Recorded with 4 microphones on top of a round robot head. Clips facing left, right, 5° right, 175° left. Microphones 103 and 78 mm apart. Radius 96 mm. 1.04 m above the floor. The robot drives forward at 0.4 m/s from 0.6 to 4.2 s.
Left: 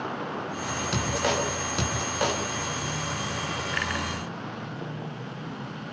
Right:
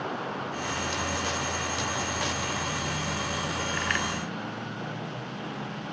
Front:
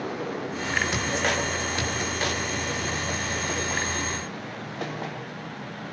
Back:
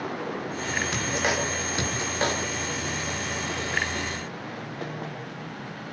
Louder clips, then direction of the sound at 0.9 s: Left 4 dB, front 1 dB; 85° left.